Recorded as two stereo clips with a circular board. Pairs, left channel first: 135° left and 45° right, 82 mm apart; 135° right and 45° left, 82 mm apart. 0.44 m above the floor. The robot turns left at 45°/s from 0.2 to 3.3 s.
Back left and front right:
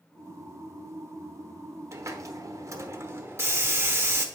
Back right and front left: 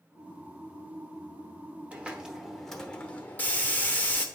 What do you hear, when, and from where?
1.9 s a hiss: 20° right, 0.8 m; by 4.2 s 80° right, 0.8 m